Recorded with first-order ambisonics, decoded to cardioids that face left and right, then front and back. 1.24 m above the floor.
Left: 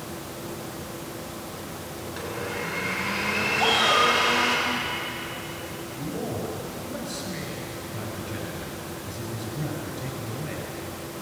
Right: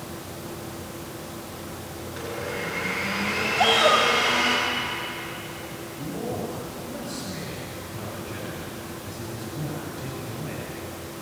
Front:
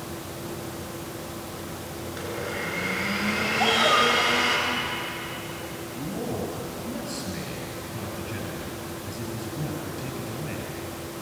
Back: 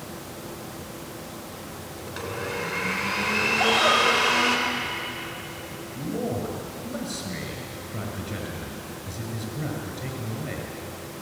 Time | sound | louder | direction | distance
2.1 | a blender | right 1 dB, back 1 dB | straight behind | 7.5 m
3.6 | a shout | right 3 dB, front 1 dB | 100° right | 5.5 m
5.9 | a man speaking | right 1 dB, back 3 dB | 165° left | 8 m